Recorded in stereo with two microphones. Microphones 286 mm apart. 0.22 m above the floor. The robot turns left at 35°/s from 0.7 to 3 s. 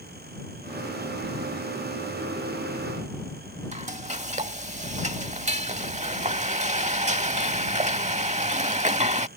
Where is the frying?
25° right (ahead or behind).